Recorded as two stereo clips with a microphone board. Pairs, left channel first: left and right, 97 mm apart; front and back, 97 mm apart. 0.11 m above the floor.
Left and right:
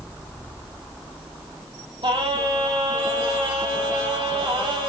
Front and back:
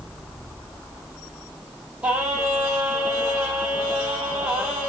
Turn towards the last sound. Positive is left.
turn(degrees=-105)